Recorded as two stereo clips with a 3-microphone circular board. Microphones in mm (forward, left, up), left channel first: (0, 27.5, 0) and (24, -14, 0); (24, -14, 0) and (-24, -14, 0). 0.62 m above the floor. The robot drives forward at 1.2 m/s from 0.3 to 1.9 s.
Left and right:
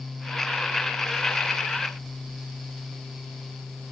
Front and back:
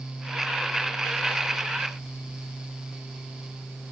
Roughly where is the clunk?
I don't hear a clunk.